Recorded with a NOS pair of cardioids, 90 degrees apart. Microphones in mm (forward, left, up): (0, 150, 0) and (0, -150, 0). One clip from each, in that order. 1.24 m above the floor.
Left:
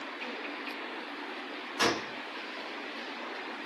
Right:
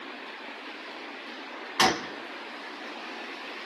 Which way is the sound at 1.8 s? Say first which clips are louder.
Right 5 dB; 50° right.